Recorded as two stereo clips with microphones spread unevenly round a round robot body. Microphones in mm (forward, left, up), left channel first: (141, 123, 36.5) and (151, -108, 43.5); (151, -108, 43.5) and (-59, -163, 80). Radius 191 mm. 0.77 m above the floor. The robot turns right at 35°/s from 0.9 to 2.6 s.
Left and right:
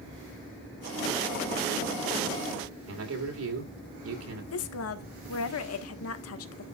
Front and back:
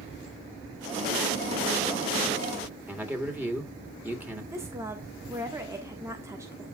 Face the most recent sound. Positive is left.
turn(degrees=110)